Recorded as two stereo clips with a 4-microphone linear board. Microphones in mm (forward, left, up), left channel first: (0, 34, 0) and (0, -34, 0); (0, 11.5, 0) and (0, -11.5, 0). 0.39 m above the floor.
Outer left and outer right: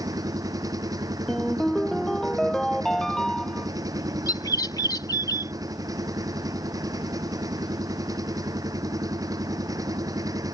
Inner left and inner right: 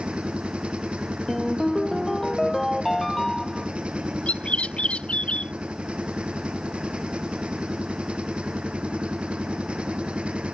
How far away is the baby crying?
No baby crying in this recording.